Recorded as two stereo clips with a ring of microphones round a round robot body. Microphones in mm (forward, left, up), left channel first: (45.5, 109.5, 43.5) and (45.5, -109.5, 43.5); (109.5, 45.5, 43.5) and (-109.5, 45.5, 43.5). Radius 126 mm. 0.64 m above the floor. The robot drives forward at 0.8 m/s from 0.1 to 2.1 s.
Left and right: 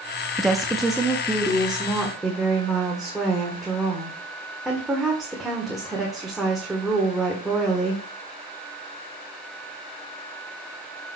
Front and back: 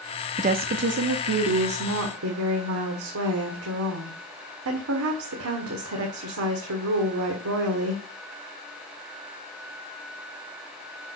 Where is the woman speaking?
Straight behind, 0.7 m.